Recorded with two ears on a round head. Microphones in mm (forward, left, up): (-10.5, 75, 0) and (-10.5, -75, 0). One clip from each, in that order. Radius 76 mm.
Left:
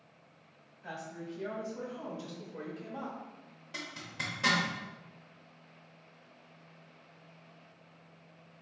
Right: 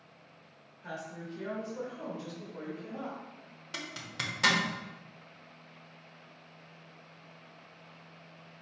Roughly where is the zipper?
Right.